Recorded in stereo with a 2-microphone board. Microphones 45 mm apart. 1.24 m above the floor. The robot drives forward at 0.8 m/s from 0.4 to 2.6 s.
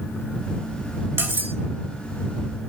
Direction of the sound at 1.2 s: 55° right (ahead or behind).